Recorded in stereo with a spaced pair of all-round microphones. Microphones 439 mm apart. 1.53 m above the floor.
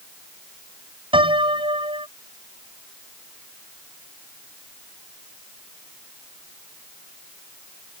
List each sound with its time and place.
1.1 s a piano: 10° right (ahead or behind)